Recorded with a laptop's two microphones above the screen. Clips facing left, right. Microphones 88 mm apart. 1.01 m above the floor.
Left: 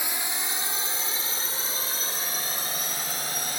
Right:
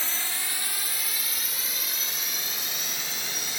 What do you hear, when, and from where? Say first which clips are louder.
0.0 s a drone: left 2 dB; 15° left (ahead or behind); by 3.6 s 40° left (ahead or behind)